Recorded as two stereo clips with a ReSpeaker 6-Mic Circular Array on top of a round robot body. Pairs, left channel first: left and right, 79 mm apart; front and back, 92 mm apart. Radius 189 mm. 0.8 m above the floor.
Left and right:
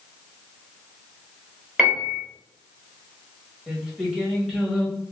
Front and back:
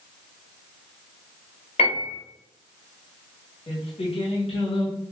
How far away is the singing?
About 1.4 m.